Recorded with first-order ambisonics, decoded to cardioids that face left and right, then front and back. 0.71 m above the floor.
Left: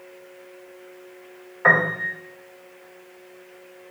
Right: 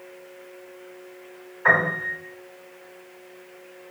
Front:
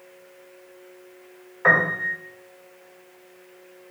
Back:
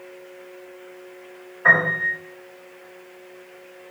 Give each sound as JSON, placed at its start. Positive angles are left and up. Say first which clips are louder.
{"t": 1.6, "sound": "a piano", "louder": "left 2 dB, back 2 dB", "azimuth_deg": 60, "distance_m": 1.5}